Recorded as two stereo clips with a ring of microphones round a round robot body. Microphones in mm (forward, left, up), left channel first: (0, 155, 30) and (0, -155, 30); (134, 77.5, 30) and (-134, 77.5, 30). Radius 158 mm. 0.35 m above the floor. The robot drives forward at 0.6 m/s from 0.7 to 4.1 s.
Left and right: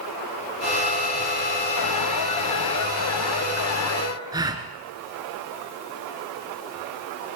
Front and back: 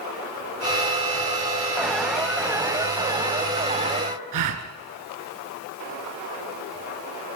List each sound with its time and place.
1.8 s an alarm: 85° left, 2.5 m; by 4.2 s 120° left, 2.5 m
4.3 s a gasp: 170° right, 1.5 m